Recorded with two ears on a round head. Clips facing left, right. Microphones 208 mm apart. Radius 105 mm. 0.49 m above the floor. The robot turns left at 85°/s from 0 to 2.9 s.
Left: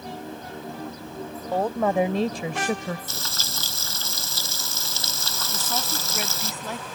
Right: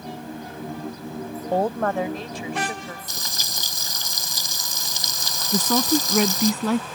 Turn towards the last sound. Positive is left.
turn(degrees=-55)  # may be behind; listen again after turning